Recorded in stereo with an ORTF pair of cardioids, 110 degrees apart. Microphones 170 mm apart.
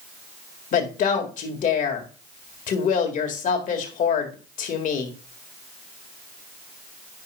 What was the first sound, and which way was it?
A woman speaking, 55° left.